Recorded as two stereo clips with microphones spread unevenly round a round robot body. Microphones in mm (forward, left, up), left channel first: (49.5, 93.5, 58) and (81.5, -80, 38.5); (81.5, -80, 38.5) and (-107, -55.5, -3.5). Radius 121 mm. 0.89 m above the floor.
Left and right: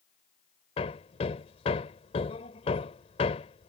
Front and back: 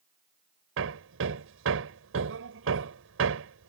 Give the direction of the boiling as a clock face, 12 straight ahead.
I don't hear boiling.